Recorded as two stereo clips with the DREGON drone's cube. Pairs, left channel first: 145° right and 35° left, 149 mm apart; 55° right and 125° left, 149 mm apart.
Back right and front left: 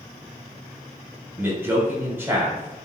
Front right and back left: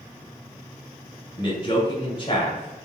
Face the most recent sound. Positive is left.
turn(degrees=-30)